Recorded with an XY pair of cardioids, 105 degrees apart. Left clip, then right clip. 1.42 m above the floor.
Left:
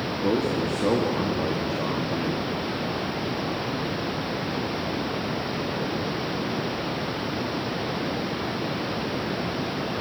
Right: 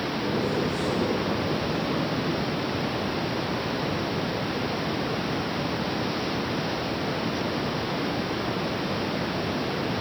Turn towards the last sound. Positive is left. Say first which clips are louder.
# left 4 dB
turn(degrees=60)